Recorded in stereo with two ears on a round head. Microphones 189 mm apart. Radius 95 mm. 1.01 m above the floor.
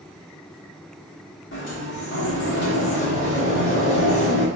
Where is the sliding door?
60° left (ahead or behind), 2 m.